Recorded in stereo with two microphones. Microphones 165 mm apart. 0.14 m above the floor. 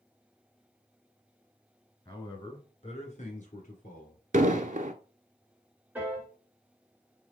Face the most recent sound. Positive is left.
turn(degrees=-10)  # may be behind; listen again after turning